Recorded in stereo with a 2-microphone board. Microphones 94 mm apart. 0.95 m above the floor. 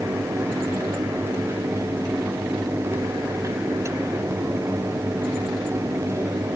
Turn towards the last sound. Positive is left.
No sound to turn to.